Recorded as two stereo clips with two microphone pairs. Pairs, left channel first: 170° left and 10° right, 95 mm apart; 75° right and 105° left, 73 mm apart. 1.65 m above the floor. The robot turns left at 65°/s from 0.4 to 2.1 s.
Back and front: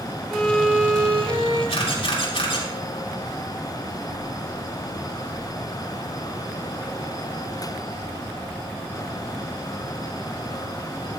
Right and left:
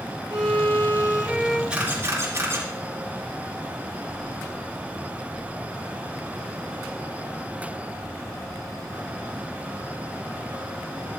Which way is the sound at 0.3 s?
85° left.